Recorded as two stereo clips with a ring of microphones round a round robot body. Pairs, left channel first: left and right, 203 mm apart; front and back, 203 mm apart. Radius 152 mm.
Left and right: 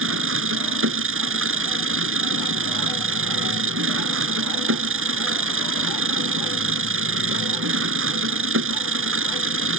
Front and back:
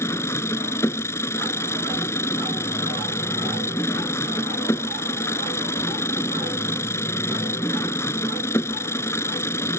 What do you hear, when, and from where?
0.0 s an engine running: 80° right